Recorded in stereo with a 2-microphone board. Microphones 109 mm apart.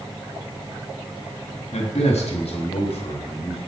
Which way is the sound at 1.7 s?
90° left.